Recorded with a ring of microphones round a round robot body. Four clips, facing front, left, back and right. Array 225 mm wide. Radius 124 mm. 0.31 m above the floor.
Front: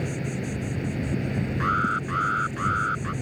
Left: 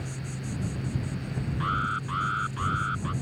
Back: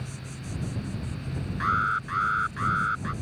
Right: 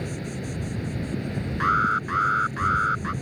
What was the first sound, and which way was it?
An insect, 30° right.